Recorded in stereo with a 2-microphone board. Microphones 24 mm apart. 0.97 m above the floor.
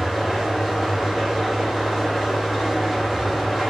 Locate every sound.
0.0 s an engine running: centre (ahead or behind), 2 m